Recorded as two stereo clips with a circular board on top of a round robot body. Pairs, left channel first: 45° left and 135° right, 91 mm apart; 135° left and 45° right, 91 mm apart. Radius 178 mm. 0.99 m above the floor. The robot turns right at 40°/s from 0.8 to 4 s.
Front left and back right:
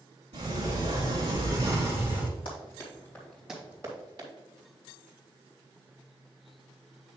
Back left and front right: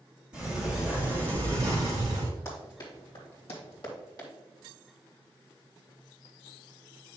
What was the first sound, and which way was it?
A sliding door, 120° right.